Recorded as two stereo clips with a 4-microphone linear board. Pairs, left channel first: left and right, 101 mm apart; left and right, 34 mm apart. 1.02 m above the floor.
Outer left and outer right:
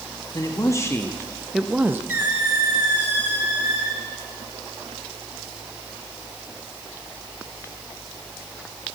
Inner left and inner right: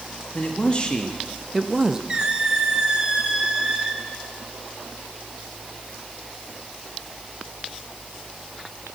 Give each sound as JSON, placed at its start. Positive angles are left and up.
{"t": 0.3, "sound": "a man speaking", "side_deg": 40, "distance_m": 1.3}
{"t": 2.1, "sound": "a squeak", "side_deg": -20, "distance_m": 1.7}